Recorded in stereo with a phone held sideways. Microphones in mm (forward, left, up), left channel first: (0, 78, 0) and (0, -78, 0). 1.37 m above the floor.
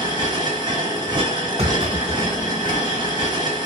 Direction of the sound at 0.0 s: 25° right (ahead or behind).